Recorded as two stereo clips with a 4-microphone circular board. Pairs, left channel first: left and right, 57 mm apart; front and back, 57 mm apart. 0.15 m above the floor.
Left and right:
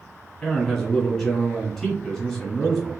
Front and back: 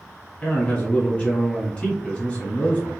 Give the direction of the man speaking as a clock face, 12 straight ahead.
11 o'clock.